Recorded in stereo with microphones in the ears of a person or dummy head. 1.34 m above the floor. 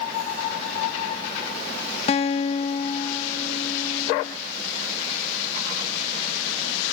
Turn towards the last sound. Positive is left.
turn(degrees=30)  # may be behind; listen again after turning